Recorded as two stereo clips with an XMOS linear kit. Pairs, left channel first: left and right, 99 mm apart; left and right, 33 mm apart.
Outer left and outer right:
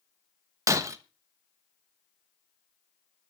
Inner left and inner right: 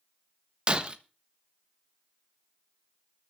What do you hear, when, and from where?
0.7 s breaking glass: 30° right (ahead or behind), 1.1 m